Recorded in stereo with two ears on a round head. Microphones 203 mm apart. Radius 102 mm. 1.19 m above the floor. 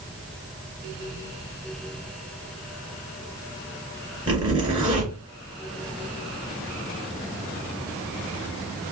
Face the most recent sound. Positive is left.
turn(degrees=-20)  # may be behind; listen again after turning